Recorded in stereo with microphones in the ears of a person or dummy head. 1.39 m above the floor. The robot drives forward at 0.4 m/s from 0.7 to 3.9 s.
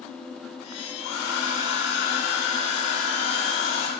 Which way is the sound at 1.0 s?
70° left (ahead or behind).